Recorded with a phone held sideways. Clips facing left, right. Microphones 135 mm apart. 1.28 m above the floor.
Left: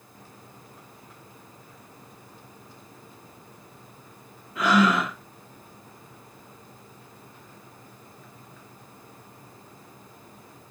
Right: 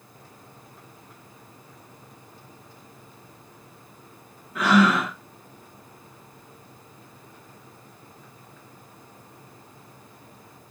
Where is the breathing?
75° right (ahead or behind), 1.7 m.